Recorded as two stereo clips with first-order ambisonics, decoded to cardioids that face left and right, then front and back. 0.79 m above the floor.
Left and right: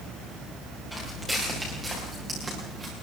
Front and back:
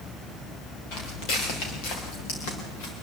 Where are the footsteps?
5° right, 7.5 m; by 2.9 s 20° right, 6.5 m.